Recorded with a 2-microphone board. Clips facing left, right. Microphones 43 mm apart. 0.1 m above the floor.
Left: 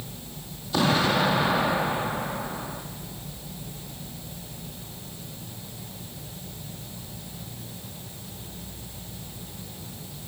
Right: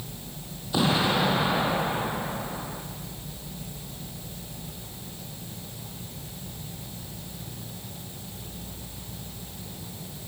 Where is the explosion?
10° right (ahead or behind), 3 m.